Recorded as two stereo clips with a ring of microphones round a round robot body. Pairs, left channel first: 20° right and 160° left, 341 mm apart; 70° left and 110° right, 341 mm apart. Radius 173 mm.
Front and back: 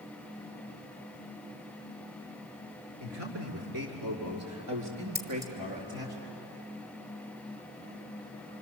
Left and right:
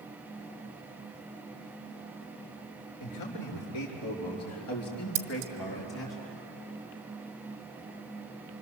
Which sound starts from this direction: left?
A man speaking, at 3.0 s.